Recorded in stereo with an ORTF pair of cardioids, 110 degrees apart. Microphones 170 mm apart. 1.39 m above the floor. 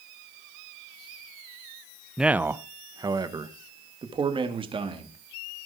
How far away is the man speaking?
About 0.7 m.